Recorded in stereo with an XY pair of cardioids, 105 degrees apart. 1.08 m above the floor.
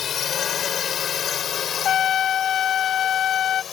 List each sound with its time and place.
0.0 s a drone: 55° left
1.9 s a trumpet: 65° left